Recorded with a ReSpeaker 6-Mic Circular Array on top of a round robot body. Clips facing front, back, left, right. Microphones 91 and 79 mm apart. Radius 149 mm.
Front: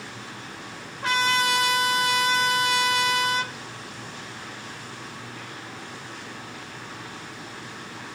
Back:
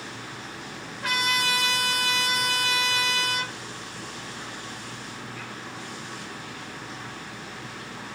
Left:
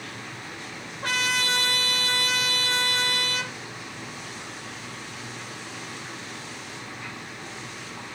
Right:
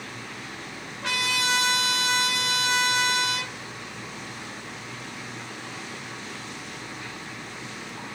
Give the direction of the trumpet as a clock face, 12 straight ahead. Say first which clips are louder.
Front 4 dB, left 1 dB; 10 o'clock.